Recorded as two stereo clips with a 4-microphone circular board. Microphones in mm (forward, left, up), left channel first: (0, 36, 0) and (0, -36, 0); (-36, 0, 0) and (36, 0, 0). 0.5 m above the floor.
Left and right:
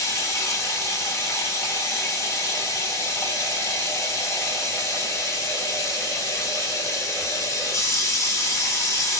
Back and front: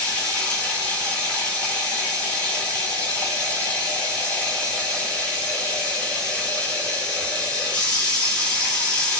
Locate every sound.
0.0 s running water: 115° left, 1.1 m